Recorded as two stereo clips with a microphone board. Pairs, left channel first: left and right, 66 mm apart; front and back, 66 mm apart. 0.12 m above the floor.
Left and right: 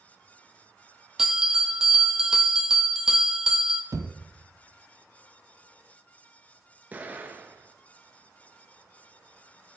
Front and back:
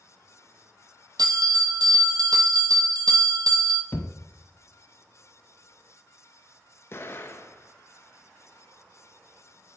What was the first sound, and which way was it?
A bell, 175° right.